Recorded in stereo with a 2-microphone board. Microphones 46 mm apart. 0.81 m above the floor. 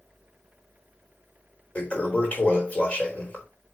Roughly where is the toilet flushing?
Left.